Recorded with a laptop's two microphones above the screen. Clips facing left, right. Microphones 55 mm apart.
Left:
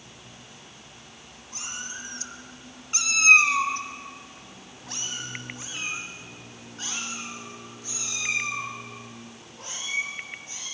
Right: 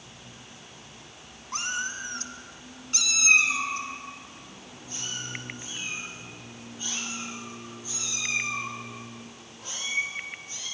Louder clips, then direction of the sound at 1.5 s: Right 7 dB; 65° right (ahead or behind).